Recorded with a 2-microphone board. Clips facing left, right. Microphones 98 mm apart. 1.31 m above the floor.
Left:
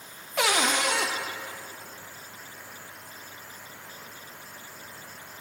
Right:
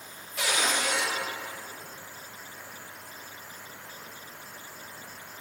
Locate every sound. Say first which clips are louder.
0.4 s a cupboard door: left 4 dB; 65° left (ahead or behind), 0.7 m